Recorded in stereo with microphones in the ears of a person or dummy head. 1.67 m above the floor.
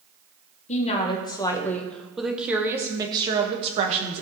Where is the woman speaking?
35° left (ahead or behind), 1.2 m; by 4.2 s 35° right (ahead or behind), 1.8 m.